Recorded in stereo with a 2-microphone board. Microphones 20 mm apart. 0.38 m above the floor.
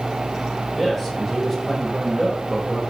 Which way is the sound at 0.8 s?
5° right (ahead or behind).